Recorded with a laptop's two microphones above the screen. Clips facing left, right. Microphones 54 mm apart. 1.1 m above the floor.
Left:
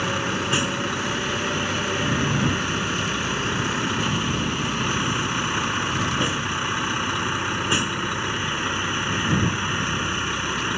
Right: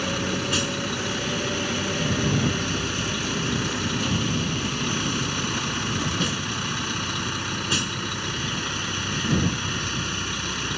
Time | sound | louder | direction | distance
0.0 | a vehicle | left 2 dB | 20° left (ahead or behind) | ?